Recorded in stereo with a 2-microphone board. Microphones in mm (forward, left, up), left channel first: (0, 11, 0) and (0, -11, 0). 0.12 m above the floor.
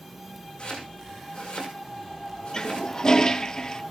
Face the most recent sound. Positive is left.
turn(degrees=35)  # may be behind; listen again after turning